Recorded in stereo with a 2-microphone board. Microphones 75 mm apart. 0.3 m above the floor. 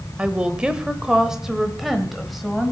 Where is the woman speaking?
15° right (ahead or behind), 1.0 m; by 2.7 s centre (ahead or behind), 1.4 m.